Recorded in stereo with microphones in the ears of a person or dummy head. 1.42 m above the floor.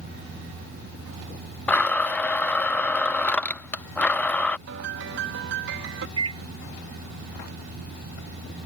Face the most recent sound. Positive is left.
turn(degrees=-30)  # may be behind; listen again after turning